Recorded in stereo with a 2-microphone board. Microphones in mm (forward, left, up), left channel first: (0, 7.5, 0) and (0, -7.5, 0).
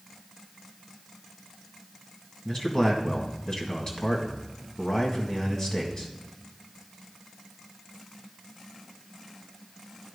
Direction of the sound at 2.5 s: 35° left (ahead or behind).